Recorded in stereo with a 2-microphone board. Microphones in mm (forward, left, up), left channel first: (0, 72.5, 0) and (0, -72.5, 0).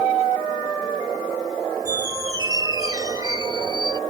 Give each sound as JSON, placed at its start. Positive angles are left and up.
{"t": 1.9, "sound": "a squeak", "side_deg": -25}